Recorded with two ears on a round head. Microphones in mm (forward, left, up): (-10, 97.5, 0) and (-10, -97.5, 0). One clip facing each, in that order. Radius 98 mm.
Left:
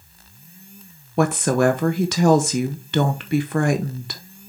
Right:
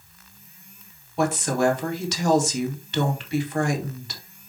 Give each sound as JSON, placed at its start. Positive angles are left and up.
{"t": 1.2, "sound": "a woman speaking", "side_deg": 45, "distance_m": 0.8}